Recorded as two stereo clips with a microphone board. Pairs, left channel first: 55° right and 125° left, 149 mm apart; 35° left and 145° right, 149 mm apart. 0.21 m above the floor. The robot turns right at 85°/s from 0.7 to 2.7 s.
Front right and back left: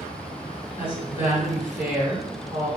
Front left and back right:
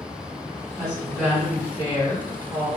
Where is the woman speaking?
90° right, 1.6 m; by 2.8 s 75° left, 1.6 m.